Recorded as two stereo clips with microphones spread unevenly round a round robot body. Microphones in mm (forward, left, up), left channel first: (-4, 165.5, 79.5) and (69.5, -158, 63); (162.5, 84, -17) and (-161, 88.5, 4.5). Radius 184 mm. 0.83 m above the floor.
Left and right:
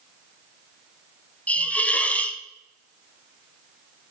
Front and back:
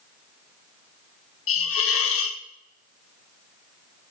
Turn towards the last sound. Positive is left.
turn(degrees=15)